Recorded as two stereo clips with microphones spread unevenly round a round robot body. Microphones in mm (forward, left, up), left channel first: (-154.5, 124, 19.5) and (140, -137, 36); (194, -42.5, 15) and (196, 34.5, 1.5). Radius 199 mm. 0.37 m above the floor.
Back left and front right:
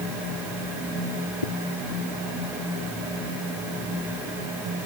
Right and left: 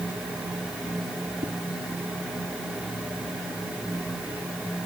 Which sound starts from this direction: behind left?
A whoosh, at 1.4 s.